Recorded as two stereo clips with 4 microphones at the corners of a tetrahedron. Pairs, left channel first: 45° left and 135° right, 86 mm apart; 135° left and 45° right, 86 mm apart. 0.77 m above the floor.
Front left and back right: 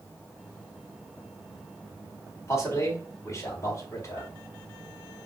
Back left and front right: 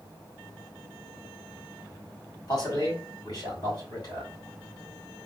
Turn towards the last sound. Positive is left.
turn(degrees=95)